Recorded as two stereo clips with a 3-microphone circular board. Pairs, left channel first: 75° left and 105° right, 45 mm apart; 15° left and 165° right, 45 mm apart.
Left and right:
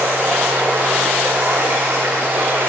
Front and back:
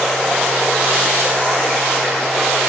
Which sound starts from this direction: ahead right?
Running water, at 0.0 s.